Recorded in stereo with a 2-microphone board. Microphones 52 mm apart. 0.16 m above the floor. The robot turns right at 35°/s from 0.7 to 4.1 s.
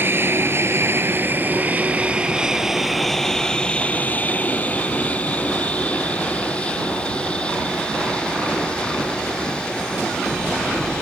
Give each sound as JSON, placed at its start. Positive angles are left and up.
{"t": 0.0, "sound": "an aircraft", "side_deg": -45}